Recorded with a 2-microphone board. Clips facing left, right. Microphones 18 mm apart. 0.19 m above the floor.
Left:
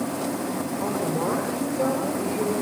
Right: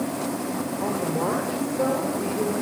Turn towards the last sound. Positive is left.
turn(degrees=-10)  # may be behind; listen again after turning